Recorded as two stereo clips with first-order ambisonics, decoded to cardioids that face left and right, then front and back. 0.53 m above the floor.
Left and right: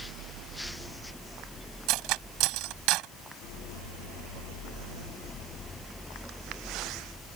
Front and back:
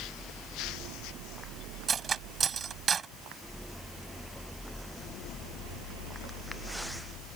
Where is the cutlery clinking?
115° right.